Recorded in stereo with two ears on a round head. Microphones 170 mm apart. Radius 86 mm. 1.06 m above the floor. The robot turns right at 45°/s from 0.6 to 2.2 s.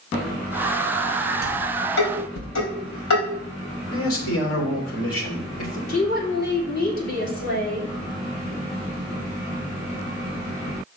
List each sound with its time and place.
1.4 s dishes clattering: 55° left (ahead or behind), 4.5 m; by 3.2 s 90° left, 4.5 m
3.9 s a man speaking: 75° left (ahead or behind), 3 m
5.9 s a woman speaking: 50° left (ahead or behind), 2.5 m